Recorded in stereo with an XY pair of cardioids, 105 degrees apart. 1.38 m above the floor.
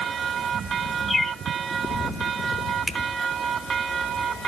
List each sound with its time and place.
1.1 s a bird: 30° left, 2.5 m
2.9 s a finger snap: 35° right, 1.6 m